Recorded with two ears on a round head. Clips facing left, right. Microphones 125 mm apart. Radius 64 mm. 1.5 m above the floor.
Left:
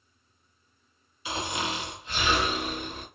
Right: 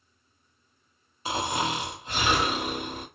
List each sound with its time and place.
1.2 s snoring: 35° right (ahead or behind), 1.2 m